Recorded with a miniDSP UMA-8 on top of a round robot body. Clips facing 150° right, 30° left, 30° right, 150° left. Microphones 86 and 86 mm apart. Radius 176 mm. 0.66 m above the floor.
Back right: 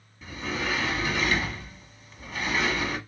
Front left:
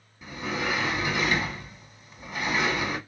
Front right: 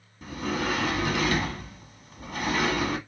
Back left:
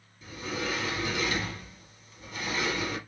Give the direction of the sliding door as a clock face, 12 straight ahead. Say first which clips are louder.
Front left 1 dB, front right 5 dB; 2 o'clock.